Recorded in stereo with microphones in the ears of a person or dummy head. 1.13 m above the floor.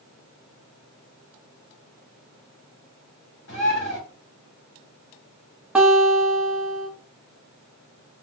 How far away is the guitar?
About 1.1 m.